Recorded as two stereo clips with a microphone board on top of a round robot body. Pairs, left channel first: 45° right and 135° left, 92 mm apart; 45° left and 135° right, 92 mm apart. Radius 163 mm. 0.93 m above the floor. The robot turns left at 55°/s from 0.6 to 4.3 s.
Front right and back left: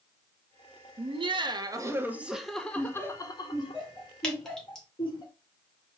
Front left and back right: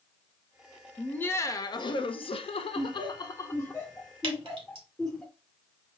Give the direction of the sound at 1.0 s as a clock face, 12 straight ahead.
8 o'clock.